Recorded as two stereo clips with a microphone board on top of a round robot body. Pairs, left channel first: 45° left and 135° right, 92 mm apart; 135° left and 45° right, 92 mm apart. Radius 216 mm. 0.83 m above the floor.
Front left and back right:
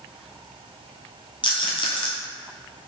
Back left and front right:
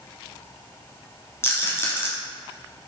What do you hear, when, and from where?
1.4 s a rattle: 75° left, 3 m